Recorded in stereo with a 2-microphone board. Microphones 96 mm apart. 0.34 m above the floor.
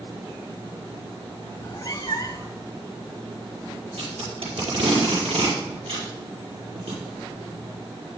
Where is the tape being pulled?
75° right (ahead or behind), 5 m.